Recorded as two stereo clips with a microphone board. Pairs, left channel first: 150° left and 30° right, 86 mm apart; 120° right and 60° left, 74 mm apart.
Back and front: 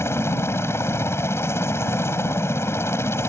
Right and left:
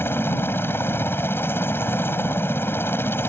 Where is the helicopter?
165° right.